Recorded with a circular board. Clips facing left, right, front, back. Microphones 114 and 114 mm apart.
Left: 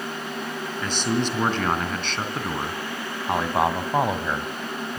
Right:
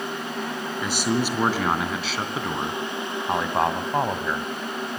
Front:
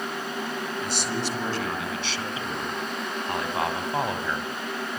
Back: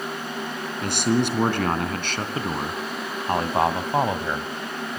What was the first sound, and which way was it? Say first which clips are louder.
A man speaking: even, back 10 dB; 170° right.